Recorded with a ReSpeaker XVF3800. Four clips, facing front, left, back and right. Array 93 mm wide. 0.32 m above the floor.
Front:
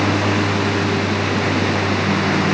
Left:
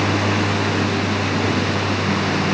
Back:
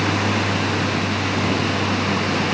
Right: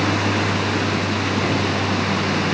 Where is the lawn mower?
15° left; by 2.5 s 5° left.